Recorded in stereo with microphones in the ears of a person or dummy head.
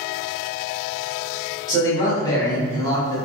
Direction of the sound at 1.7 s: 25° left (ahead or behind).